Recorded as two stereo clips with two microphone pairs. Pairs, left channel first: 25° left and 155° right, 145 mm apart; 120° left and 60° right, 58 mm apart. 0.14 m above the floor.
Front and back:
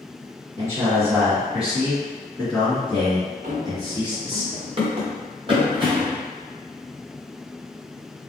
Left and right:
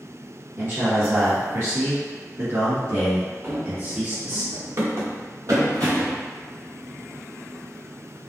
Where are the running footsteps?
120° right, 1.3 m; by 6.2 s 90° right, 2.5 m.